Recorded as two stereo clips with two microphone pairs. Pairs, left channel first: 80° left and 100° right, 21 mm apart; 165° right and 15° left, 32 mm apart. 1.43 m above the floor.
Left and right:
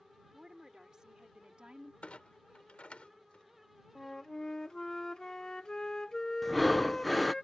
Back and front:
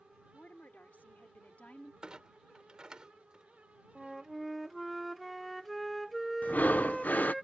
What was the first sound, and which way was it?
A woman speaking, 160° right.